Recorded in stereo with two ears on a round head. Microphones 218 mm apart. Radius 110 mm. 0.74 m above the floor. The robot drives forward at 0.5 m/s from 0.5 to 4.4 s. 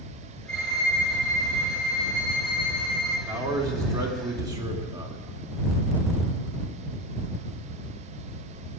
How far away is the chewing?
No chewing in this recording.